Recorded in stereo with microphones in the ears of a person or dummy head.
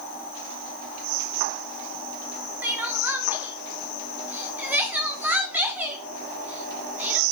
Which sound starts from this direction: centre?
Crying, at 2.6 s.